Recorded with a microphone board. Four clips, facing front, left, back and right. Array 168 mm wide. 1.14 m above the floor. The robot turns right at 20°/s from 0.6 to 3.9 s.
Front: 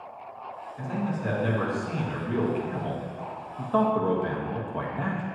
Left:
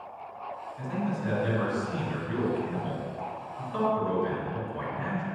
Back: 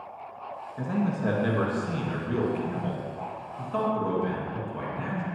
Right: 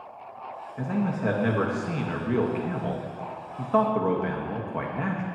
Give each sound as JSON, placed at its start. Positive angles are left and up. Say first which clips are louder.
{"t": 0.8, "sound": "a man speaking", "louder": "right 5 dB, back 3 dB", "azimuth_deg": -125, "distance_m": 1.5}